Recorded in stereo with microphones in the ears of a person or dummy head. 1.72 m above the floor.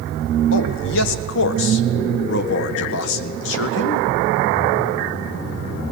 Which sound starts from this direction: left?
A man speaking, at 0.5 s.